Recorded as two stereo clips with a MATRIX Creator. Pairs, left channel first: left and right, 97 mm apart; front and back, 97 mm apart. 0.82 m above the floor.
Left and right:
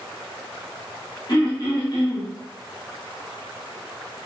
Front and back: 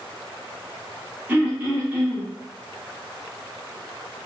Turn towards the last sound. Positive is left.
turn(degrees=115)